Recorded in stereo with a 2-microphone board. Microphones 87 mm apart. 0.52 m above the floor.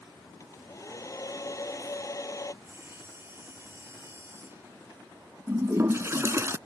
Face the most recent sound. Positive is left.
turn(degrees=-30)  # may be behind; listen again after turning